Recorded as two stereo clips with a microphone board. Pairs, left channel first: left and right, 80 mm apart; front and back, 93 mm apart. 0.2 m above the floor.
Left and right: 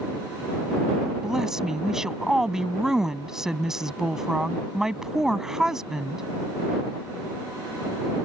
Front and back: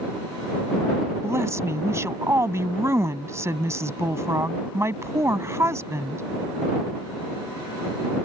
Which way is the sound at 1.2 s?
170° right.